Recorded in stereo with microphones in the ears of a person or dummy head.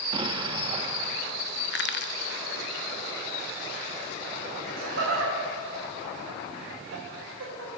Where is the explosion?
25° right (ahead or behind), 0.7 m.